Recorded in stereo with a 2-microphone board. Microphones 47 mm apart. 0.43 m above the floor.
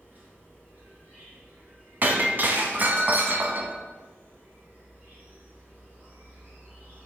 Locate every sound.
0.0 s an insect: 40° right (ahead or behind), 2.5 m
2.0 s breaking glass: 40° right (ahead or behind), 0.9 m